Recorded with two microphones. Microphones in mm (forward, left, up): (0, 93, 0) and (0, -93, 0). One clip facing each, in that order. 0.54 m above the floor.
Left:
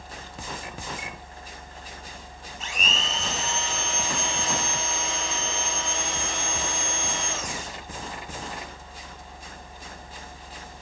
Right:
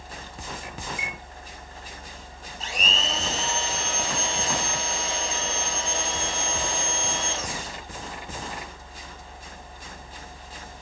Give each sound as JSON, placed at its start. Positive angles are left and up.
{"t": 1.0, "sound": "a chime", "side_deg": -5, "distance_m": 8.5}
{"t": 2.6, "sound": "a blender", "side_deg": -35, "distance_m": 3.5}